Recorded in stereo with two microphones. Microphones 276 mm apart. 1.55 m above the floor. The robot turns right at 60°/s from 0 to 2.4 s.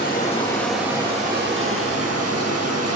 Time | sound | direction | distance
0.0 | running water | 135° left | 1.5 m